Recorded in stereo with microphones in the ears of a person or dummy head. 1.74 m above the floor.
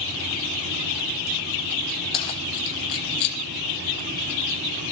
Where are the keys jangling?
25° left (ahead or behind), 0.9 m; by 3.4 s 55° left (ahead or behind), 1.0 m.